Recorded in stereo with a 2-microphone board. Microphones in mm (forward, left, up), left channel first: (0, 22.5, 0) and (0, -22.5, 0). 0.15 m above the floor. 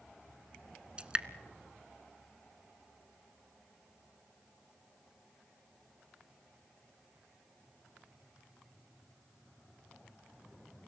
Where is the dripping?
20° right (ahead or behind), 0.8 m.